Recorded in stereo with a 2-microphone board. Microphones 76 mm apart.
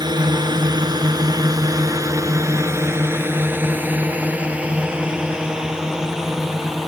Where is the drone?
70° right (ahead or behind); by 6.9 s centre (ahead or behind).